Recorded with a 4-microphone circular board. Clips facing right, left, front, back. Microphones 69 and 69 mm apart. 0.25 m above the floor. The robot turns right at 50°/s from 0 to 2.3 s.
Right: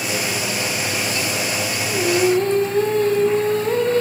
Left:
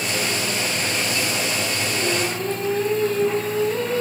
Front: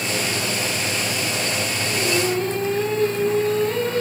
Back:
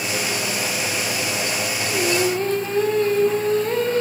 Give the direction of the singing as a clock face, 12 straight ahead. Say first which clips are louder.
Right 10 dB, back 1 dB; 5 o'clock.